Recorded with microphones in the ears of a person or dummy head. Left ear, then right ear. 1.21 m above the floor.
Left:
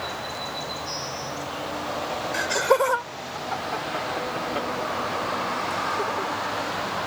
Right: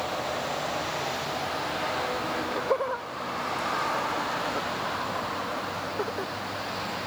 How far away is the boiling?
No boiling in this recording.